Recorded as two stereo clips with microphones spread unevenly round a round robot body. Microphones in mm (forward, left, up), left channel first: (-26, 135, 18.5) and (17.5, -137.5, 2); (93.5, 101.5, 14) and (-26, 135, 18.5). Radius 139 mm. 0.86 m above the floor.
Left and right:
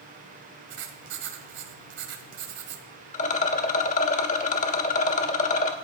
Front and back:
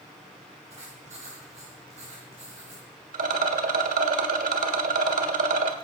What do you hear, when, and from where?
0.7 s writing: 130° right, 1.5 m
3.1 s a rattle: 165° left, 1.5 m